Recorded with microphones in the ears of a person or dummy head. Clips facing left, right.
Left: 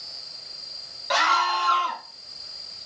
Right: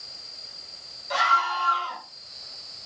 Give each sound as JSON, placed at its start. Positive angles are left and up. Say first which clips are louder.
{"t": 1.1, "sound": "a scream", "louder": "left 3 dB", "side_deg": 80, "distance_m": 1.9}